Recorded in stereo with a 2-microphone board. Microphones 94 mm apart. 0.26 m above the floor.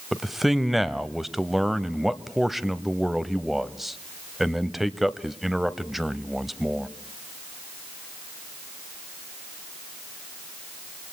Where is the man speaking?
Centre (ahead or behind), 1.0 m.